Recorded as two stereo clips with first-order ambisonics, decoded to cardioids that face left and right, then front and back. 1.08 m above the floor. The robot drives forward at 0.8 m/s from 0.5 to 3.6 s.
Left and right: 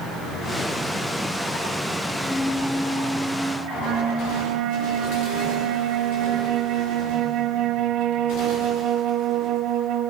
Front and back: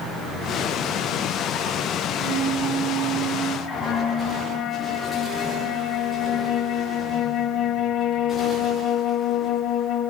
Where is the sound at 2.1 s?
Straight behind, 1.9 m.